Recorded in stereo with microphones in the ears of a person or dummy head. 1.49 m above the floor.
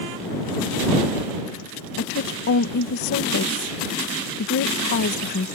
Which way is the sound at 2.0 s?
45° left (ahead or behind).